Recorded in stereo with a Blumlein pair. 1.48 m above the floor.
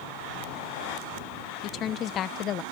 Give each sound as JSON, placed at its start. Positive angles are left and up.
{"t": 1.6, "sound": "a woman speaking", "azimuth_deg": 30}